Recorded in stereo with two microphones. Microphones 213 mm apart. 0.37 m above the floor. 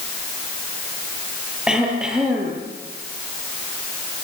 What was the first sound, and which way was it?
Throat clearing, 5° right (ahead or behind).